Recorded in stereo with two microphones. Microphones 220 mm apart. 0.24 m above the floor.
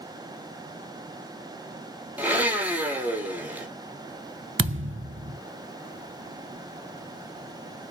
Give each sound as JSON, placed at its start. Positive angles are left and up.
{"t": 2.2, "sound": "a blender", "side_deg": -10, "distance_m": 1.0}
{"t": 4.6, "sound": "a thud", "side_deg": -60, "distance_m": 0.5}